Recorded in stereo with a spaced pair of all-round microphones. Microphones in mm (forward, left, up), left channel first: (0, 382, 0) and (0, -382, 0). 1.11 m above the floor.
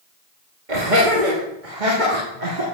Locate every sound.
0.7 s laughter: 70° right (ahead or behind), 2.5 m; by 2.6 s 65° right (ahead or behind), 3 m